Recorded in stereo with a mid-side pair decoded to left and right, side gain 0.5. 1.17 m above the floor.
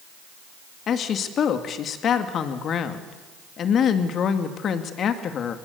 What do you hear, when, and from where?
0.9 s a woman speaking: 55° left, 2 m